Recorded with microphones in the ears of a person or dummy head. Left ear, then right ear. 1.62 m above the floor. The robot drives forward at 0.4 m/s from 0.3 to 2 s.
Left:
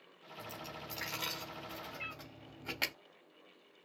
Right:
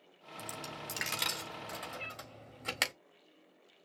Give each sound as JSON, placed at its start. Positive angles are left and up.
{"t": 0.4, "sound": "a dropped coin", "side_deg": -50, "distance_m": 1.6}
{"t": 2.0, "sound": "a cat meowing", "side_deg": -5, "distance_m": 1.0}